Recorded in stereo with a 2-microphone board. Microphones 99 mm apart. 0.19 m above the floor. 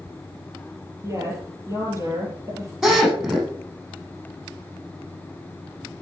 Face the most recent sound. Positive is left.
turn(degrees=-5)  # may be behind; listen again after turning